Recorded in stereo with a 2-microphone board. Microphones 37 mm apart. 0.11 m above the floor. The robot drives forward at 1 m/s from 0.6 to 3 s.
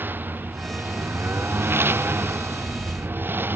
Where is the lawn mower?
60° right (ahead or behind); by 3.6 s 70° right (ahead or behind).